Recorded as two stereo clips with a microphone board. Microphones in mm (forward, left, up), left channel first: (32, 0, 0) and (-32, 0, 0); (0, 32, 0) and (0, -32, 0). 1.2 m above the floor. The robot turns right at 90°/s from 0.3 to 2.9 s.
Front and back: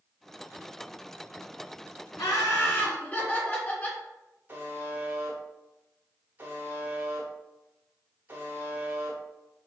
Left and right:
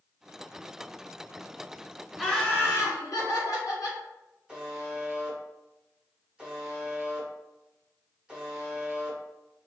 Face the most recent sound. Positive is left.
turn(degrees=-155)